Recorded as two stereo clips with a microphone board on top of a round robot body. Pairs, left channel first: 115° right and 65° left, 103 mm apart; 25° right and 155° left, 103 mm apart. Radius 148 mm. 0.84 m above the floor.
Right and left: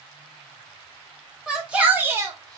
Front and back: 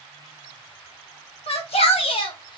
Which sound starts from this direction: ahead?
A shout, at 1.5 s.